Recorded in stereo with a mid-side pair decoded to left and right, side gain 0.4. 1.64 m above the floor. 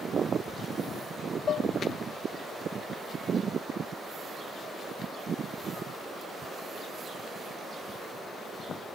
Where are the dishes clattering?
50° left.